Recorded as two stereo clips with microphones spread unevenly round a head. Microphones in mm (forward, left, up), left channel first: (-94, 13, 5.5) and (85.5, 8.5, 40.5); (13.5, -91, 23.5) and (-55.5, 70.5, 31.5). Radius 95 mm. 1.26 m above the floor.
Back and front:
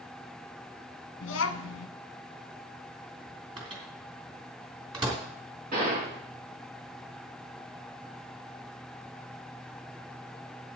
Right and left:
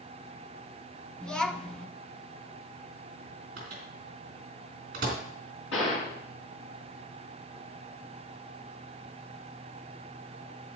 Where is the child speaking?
155° right, 0.9 m.